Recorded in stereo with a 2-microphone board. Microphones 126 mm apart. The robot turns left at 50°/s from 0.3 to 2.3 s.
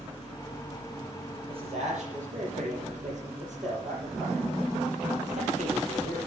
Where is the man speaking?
45° right, 6.5 m; by 6.3 s 85° right, 6.5 m.